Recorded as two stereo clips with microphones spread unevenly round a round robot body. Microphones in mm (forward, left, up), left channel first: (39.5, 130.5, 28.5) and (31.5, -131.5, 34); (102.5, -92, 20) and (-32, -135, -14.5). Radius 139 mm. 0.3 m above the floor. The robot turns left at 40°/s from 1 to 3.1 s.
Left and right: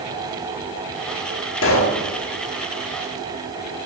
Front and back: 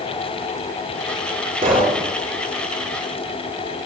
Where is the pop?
135° left, 4 m; by 2.0 s 120° left, 4 m.